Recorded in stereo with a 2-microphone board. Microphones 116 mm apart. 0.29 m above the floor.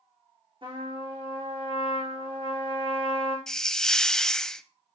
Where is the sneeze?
No sneeze in this recording.